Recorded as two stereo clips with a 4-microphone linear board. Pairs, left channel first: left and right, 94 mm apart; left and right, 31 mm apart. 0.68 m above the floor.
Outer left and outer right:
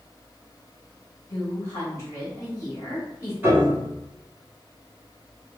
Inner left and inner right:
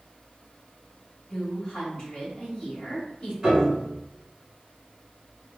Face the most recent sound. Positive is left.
turn(degrees=-20)  # may be behind; listen again after turning